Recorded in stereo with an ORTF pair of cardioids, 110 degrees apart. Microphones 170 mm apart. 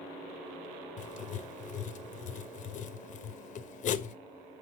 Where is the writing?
50° left, 0.6 m.